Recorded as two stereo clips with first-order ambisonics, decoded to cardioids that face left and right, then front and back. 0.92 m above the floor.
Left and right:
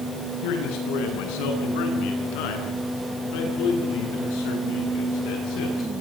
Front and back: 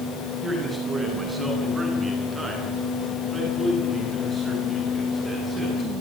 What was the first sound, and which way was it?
A man speaking, 100° left.